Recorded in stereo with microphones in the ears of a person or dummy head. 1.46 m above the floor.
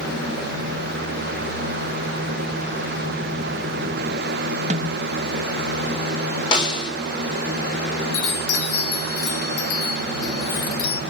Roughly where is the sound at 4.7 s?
Right.